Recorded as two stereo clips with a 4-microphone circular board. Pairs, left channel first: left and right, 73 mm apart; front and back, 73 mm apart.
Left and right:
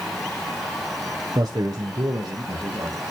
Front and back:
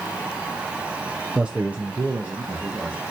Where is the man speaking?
105° right, 0.6 m; by 3.0 s 115° right, 1.5 m.